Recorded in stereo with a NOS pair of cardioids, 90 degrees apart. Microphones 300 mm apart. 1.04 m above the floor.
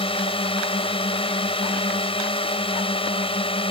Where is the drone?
20° left.